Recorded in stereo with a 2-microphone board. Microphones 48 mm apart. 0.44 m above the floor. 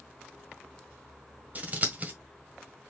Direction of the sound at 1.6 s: 30° right (ahead or behind).